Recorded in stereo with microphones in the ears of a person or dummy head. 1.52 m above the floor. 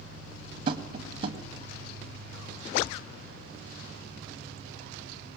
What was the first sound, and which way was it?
Tapping, 30° right (ahead or behind).